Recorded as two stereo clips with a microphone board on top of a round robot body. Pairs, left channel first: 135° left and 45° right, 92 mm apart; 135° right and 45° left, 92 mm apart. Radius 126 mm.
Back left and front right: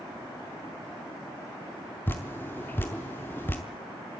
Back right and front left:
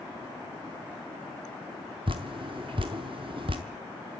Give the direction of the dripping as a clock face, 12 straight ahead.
10 o'clock.